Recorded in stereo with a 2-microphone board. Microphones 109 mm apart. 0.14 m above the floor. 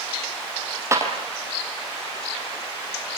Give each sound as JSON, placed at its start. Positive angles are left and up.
{"t": 0.9, "sound": "a clap", "side_deg": -25, "distance_m": 4.5}